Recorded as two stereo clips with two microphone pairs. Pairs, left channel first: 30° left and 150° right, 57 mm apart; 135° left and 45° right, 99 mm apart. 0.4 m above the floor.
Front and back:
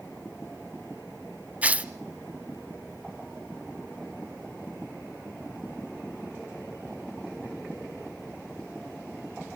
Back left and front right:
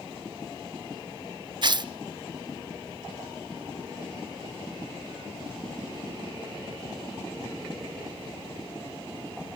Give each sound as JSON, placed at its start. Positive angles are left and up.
{"t": 1.6, "sound": "tearing paper", "azimuth_deg": -85, "distance_m": 0.6}